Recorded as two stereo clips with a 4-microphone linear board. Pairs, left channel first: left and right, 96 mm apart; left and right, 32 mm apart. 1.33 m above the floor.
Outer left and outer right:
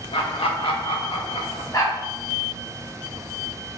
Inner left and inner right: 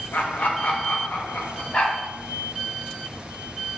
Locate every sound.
0.1 s laughter: 75° left (ahead or behind), 2 m
1.7 s a dog barking: 40° left (ahead or behind), 3 m